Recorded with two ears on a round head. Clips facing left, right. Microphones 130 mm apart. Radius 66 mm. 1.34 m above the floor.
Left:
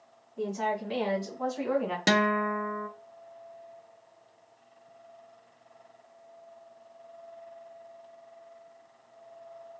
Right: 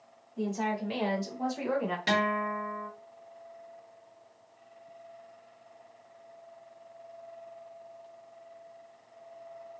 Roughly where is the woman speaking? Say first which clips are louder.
Left 1 dB; right.